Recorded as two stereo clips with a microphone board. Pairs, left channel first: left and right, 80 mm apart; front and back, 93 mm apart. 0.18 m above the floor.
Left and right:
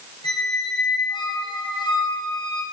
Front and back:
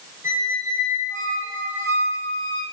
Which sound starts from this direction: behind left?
A squeak, at 0.2 s.